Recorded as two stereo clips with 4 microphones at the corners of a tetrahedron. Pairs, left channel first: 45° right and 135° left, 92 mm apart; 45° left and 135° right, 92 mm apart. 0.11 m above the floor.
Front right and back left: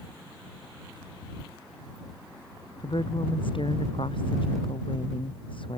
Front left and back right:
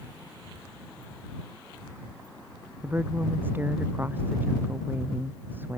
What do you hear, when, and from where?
2.8 s a woman speaking: 65° right